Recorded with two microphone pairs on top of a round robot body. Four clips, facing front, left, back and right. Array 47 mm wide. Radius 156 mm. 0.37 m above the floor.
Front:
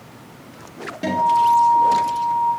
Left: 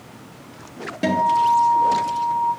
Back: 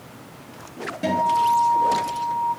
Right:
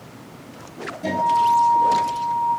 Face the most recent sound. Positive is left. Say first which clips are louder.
# left 1 dB, front 3 dB
turn(degrees=85)